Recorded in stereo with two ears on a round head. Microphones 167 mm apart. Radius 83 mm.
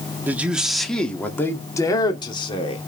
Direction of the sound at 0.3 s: 10° right (ahead or behind).